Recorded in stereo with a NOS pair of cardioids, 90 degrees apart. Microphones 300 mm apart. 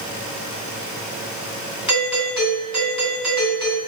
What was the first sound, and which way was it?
A doorbell, straight ahead.